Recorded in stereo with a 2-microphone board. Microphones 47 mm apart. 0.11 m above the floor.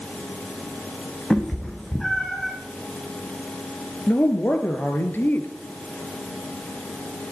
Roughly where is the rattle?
No rattle in this recording.